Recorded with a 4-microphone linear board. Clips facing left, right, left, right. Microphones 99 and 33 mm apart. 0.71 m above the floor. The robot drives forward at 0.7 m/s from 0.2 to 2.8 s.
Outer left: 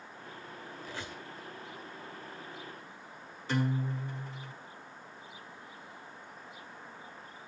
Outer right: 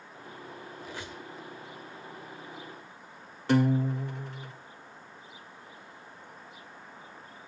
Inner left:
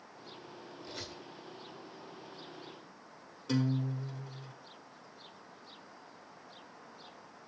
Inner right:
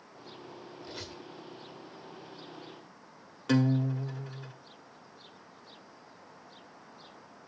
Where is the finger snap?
No finger snap in this recording.